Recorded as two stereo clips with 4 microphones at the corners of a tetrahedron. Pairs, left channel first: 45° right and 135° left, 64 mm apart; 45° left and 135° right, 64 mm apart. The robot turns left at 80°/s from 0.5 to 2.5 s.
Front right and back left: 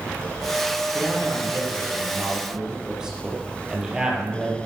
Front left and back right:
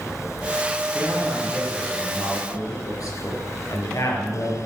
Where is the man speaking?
175° right, 4 m; by 4.6 s 60° left, 4 m.